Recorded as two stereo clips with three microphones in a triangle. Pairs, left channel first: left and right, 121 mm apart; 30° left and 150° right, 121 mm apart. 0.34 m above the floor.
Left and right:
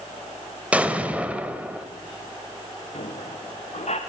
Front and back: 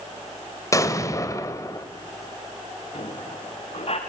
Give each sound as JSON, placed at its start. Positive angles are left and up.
{"t": 0.7, "sound": "an explosion", "azimuth_deg": -15, "distance_m": 1.8}
{"t": 2.9, "sound": "a squeak", "azimuth_deg": 65, "distance_m": 2.5}